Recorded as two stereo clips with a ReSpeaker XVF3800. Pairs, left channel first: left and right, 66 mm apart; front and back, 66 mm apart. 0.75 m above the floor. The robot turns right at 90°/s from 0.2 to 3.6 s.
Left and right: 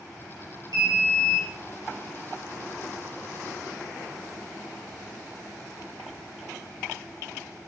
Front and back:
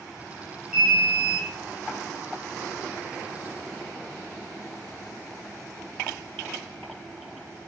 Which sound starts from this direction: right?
An alarm, at 0.7 s.